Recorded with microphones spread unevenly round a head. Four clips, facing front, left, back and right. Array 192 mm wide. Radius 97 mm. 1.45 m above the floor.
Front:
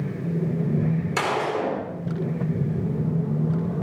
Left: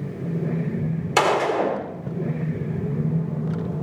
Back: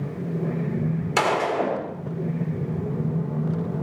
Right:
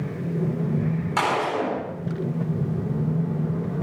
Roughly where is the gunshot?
Left.